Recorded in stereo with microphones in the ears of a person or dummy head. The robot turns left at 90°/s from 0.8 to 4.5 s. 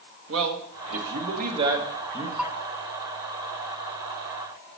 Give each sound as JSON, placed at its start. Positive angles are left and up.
{"t": 0.3, "sound": "a man speaking", "azimuth_deg": -85, "distance_m": 1.4}
{"t": 2.4, "sound": "a bell", "side_deg": -5, "distance_m": 0.7}